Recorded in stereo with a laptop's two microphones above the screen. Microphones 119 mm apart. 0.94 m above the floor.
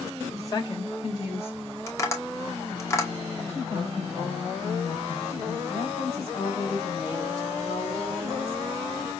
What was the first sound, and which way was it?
A woman speaking, 20° left (ahead or behind).